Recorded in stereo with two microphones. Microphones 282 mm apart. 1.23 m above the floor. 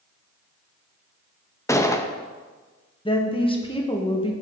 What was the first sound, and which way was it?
A gunshot, 10° left (ahead or behind).